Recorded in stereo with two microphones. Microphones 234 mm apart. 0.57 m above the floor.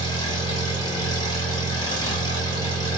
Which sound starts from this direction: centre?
An engine running, at 0.0 s.